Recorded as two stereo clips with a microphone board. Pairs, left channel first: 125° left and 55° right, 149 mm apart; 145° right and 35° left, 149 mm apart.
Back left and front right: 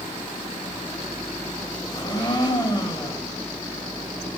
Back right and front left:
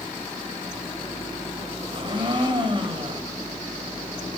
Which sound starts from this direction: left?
A blender, at 1.9 s.